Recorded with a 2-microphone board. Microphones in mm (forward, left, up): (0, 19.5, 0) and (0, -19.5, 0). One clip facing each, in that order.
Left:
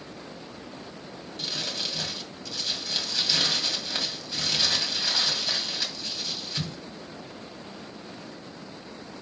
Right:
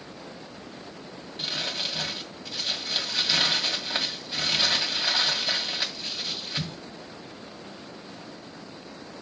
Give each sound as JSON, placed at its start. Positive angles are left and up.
{"t": 1.4, "sound": "crumpling", "side_deg": -15, "distance_m": 2.0}